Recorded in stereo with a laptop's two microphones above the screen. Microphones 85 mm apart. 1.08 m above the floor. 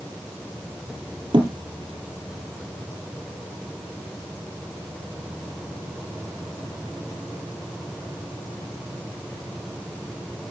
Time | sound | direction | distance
1.3 | a thud | 60° right (ahead or behind) | 2 m